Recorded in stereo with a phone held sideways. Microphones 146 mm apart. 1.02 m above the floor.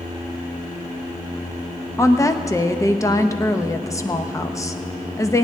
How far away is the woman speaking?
About 0.7 m.